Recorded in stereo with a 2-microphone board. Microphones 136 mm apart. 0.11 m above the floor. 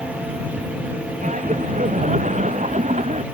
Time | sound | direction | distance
1.2 | laughter | 65° right (ahead or behind) | ?